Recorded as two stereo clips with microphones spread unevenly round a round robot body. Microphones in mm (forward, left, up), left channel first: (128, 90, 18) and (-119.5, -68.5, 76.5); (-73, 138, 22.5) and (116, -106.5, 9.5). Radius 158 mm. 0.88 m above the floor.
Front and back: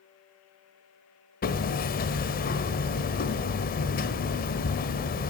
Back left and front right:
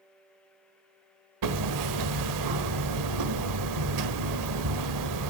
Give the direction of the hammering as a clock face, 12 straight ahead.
1 o'clock.